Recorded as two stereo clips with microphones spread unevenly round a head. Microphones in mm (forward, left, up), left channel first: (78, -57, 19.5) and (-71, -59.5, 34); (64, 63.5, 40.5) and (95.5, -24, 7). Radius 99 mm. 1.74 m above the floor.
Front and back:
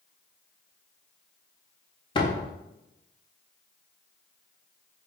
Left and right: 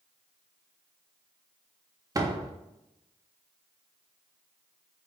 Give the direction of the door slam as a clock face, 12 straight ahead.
1 o'clock.